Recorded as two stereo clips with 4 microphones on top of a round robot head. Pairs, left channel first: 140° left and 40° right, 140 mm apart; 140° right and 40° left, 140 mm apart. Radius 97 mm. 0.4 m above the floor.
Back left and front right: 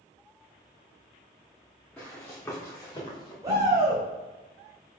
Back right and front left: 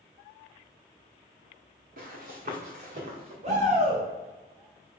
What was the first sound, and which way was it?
Running footsteps, 65° left.